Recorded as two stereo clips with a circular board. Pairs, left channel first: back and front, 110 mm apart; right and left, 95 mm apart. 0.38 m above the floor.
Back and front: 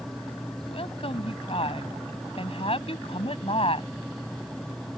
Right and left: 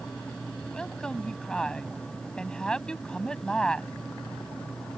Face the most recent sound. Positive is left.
turn(degrees=-170)